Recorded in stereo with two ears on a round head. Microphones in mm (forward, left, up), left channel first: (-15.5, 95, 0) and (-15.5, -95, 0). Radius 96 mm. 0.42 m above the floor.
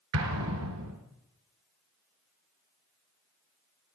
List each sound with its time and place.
0.1 s an explosion: 85° right, 3.5 m